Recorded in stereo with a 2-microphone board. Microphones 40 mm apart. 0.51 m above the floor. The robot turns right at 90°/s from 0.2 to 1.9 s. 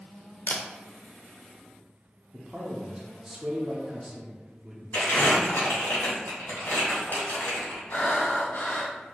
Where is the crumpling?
70° left (ahead or behind), 1.9 m.